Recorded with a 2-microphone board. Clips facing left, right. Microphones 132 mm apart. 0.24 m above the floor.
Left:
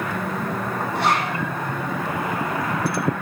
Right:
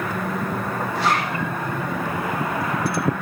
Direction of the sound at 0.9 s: 60° left (ahead or behind).